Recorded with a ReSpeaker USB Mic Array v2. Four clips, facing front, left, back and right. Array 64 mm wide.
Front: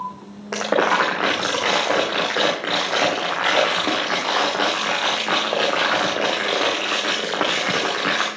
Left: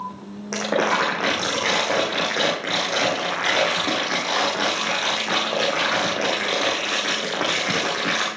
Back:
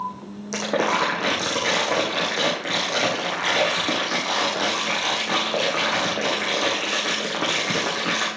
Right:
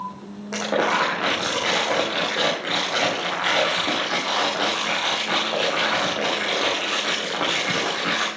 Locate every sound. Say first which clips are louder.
0.5 s crumpling: even, front 4 dB; 10° left, 3.5 m